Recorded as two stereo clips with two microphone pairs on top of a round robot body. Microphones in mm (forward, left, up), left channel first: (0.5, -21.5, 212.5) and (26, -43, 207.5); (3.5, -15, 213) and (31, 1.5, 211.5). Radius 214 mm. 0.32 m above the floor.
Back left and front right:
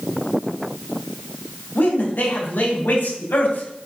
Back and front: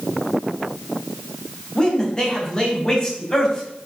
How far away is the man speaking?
About 4 m.